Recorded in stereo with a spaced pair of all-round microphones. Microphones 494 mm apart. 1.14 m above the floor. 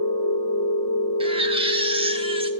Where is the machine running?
50° left (ahead or behind), 1.5 m.